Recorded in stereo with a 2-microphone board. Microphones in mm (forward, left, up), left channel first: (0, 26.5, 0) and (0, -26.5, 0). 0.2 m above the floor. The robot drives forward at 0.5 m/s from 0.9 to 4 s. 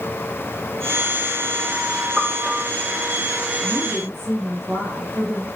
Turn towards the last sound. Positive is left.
turn(degrees=5)  # may be behind; listen again after turning